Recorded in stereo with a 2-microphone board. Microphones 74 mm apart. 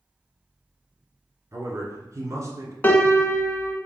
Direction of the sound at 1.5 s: 45° right (ahead or behind).